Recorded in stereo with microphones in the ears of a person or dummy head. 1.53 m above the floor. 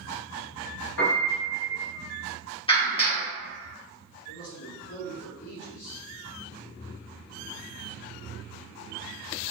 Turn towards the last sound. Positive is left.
turn(degrees=70)  # may be behind; listen again after turning